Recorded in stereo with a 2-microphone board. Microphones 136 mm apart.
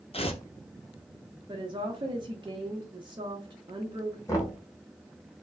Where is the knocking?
25° left (ahead or behind), 1.0 m.